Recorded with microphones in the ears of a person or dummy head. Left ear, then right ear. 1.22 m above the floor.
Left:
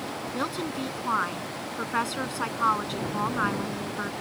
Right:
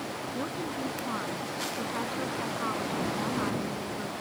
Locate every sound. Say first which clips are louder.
0.3 s a woman speaking: left 5 dB; 55° left (ahead or behind)